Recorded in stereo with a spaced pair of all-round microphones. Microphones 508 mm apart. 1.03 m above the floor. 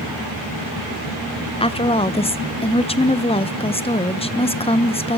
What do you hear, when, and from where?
1.6 s a woman speaking: 10° left (ahead or behind), 0.5 m